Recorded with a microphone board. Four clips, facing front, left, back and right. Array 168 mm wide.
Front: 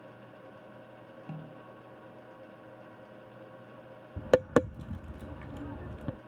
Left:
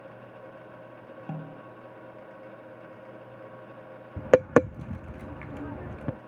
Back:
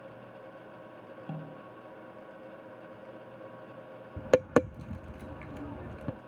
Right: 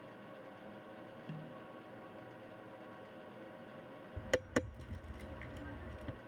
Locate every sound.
1.3 s a snare drum: 105° left
4.2 s tapping: 90° left